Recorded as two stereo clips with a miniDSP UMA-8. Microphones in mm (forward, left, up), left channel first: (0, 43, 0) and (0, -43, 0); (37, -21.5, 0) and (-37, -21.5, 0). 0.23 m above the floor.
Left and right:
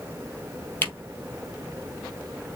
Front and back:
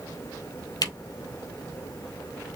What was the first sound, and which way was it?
A camera shutter, 25° left.